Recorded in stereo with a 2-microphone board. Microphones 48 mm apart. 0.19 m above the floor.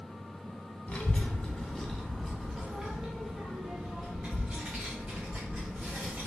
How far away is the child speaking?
About 0.9 m.